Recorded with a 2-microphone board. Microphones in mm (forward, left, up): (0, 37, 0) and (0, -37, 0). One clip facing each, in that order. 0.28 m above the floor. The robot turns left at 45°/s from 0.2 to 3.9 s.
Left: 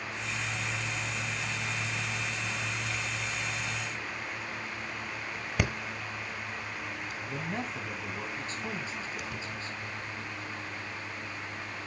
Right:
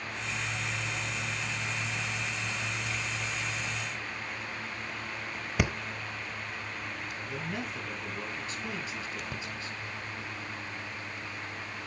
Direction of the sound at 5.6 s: Centre (ahead or behind).